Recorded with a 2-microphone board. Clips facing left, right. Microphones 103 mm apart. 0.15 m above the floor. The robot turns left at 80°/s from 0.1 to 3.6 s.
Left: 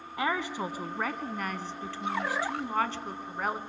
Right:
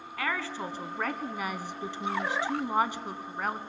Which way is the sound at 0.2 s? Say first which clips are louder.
Left 3 dB; 20° left (ahead or behind).